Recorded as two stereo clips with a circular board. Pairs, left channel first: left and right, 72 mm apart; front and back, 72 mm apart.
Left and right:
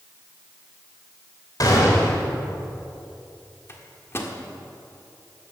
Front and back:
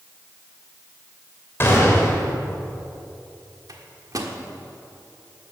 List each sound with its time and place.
1.6 s a gunshot: 55° left, 3 m
3.7 s a microwave: 145° left, 1.4 m